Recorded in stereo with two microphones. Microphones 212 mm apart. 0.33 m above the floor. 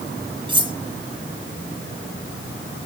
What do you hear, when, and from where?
0.5 s cutlery clinking: 25° right (ahead or behind), 1.1 m